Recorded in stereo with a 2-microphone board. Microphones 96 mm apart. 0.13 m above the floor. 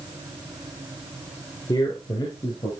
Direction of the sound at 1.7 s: 45° left (ahead or behind).